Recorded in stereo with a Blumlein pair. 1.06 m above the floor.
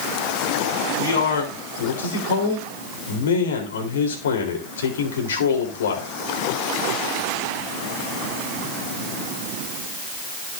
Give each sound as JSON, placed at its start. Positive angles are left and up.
{"t": 1.0, "sound": "a man speaking", "azimuth_deg": 60, "distance_m": 3.5}